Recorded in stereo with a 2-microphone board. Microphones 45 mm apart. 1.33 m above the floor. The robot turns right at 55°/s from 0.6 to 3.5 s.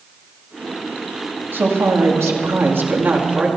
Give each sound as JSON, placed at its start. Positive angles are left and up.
{"t": 1.5, "sound": "a woman speaking", "azimuth_deg": -130, "distance_m": 2.0}